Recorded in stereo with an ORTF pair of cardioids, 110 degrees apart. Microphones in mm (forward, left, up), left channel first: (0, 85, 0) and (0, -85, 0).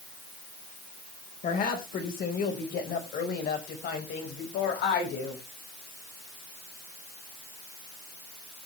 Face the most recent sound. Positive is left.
turn(degrees=75)